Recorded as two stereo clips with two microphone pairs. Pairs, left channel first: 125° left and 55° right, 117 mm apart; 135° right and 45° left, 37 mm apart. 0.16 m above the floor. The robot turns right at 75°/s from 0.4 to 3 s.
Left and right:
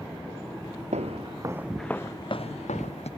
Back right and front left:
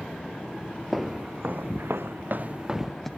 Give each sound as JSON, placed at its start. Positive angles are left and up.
{"t": 0.9, "sound": "footsteps", "azimuth_deg": -40}